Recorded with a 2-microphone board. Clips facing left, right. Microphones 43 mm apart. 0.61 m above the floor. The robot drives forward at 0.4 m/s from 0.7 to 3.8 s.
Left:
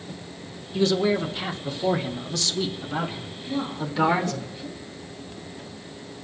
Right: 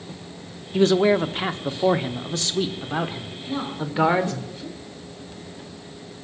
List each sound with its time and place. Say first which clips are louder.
0.7 s a man speaking: right 4 dB; 45° right (ahead or behind), 1.1 m; by 4.4 s 25° right (ahead or behind), 1.8 m
3.4 s a woman speaking: even; 80° right, 8 m